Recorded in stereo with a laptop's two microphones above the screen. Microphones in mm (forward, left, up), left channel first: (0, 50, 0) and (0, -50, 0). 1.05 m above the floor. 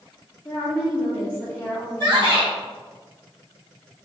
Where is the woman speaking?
25° left (ahead or behind), 1.0 m.